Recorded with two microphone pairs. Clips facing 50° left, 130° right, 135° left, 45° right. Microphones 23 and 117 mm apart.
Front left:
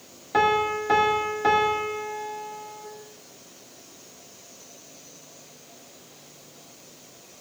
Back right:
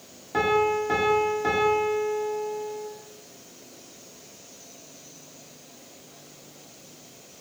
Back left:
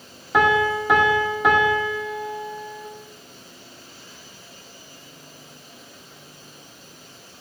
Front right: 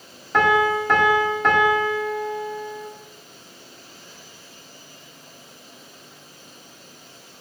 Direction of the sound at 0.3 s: 65° left.